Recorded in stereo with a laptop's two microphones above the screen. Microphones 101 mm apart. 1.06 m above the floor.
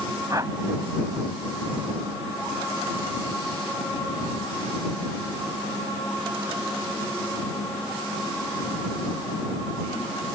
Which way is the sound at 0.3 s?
35° right (ahead or behind).